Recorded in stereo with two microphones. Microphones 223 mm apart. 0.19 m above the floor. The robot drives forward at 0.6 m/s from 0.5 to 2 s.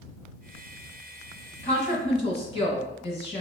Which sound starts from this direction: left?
A woman speaking, at 1.6 s.